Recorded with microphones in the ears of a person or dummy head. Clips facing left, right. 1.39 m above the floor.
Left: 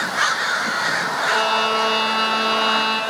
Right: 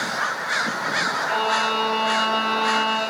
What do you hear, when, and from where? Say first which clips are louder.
1.3 s a violin: left 3 dB; 50° left (ahead or behind), 2.5 m